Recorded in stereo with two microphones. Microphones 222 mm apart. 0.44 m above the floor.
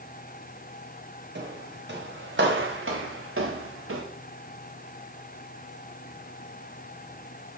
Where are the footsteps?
55° right (ahead or behind), 4 m; by 4.0 s 80° right, 2 m.